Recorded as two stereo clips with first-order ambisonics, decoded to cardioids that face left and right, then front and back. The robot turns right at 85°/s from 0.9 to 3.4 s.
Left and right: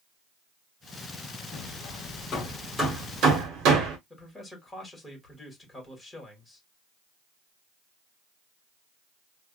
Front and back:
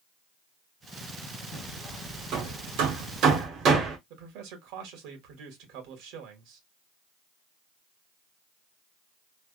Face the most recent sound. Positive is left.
turn(degrees=170)